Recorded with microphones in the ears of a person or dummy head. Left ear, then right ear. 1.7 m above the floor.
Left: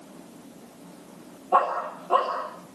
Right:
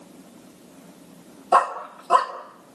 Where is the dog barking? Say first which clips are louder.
Right 3 dB; 50° right (ahead or behind), 1.9 m.